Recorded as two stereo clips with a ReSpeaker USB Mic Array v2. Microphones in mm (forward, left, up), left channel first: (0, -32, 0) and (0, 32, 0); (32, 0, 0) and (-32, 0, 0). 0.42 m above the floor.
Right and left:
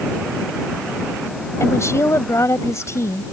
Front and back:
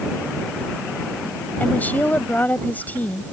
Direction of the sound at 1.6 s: 60° right.